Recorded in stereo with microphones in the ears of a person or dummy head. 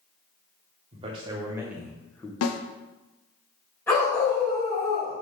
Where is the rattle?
I don't hear a rattle.